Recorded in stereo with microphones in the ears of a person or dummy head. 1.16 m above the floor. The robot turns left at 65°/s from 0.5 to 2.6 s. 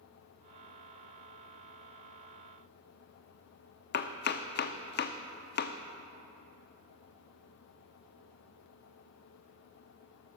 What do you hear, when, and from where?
3.9 s chopping: 50° left (ahead or behind), 0.5 m